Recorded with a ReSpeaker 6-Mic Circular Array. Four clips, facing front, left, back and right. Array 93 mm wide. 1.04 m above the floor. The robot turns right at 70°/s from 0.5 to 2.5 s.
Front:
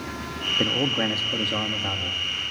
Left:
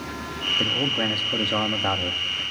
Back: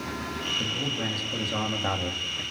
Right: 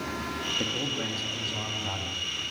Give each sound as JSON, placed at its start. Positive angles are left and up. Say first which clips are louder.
{"t": 0.6, "sound": "a man speaking", "louder": "left 10 dB, front 11 dB", "azimuth_deg": 15, "distance_m": 2.5}